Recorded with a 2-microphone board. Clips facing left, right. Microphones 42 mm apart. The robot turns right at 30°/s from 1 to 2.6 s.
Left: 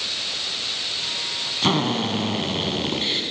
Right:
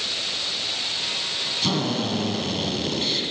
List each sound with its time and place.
1.6 s a drill: 40° left (ahead or behind), 1.7 m; by 3.2 s 30° left (ahead or behind), 1.7 m